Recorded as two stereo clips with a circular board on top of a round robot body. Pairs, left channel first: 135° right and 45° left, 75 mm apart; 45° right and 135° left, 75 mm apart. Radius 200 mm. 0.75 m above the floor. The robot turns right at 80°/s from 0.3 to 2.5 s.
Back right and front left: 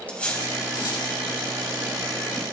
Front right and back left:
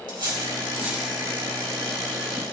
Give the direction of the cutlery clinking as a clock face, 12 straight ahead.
7 o'clock.